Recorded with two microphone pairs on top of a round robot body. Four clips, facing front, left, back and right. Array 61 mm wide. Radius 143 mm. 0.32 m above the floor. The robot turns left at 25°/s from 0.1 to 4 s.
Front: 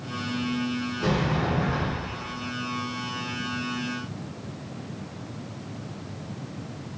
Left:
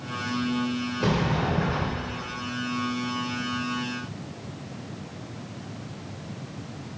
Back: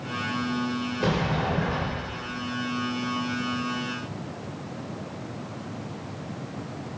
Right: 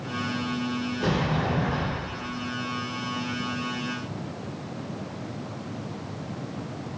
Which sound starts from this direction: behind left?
A sliding door, at 1.0 s.